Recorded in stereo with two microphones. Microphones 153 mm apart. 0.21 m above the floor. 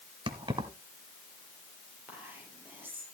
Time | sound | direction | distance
0.3 | keys jangling | 30° right (ahead or behind) | 1.0 m
2.1 | whispering | 15° right (ahead or behind) | 6 m